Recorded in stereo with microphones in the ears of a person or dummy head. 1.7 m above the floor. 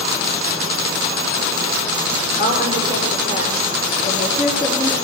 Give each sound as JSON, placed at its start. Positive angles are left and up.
{"t": 2.4, "sound": "a woman speaking", "side_deg": -15, "distance_m": 5.0}